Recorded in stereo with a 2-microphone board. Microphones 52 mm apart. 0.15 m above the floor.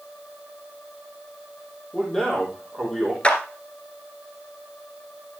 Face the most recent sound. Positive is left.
turn(degrees=25)  # may be behind; listen again after turning